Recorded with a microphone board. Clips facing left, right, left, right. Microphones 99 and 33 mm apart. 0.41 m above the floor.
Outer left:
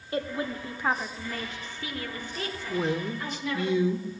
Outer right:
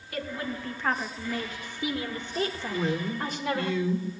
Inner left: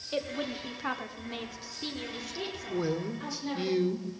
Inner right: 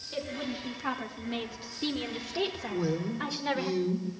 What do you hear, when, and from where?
0.1 s a woman speaking: 30° left (ahead or behind), 1.1 m; by 3.7 s 45° right (ahead or behind), 1.9 m
2.7 s a man speaking: 20° left (ahead or behind), 0.8 m